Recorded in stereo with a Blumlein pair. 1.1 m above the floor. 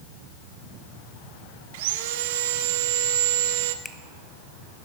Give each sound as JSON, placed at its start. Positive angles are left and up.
{"t": 1.7, "sound": "sawing", "azimuth_deg": -50, "distance_m": 0.6}
{"t": 3.9, "sound": "a finger snap", "azimuth_deg": 10, "distance_m": 0.8}